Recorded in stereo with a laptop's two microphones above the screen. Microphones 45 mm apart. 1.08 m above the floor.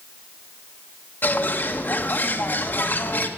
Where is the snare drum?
No snare drum in this recording.